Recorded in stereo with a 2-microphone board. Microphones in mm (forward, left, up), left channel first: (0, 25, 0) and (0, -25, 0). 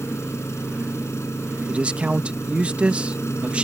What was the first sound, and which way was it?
An engine running, 65° left (ahead or behind).